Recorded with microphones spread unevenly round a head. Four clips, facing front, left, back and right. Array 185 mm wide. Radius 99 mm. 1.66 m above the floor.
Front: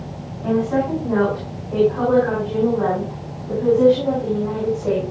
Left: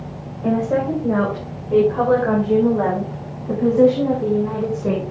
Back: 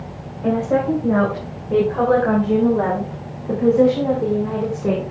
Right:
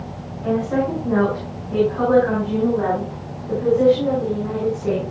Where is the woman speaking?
145° left, 8.5 m; by 5.0 s straight behind, 5.5 m.